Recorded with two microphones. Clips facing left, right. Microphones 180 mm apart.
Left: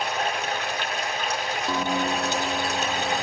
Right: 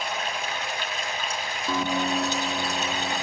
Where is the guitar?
5° left (ahead or behind), 8.5 m.